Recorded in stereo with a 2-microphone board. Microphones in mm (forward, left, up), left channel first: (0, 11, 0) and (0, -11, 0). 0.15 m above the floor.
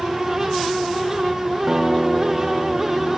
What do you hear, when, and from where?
1.7 s a guitar: 25° right (ahead or behind), 3 m